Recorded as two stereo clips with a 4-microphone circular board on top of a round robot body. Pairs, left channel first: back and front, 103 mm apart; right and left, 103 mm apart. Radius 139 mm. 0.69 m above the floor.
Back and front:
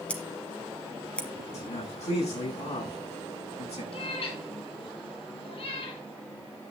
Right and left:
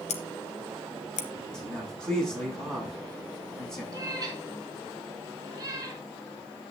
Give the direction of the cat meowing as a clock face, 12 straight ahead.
7 o'clock.